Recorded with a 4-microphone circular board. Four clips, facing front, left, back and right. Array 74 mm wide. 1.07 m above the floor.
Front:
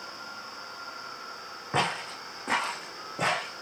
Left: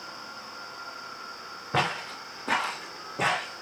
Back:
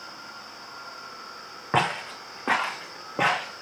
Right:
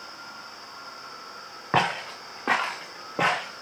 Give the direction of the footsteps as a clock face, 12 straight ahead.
4 o'clock.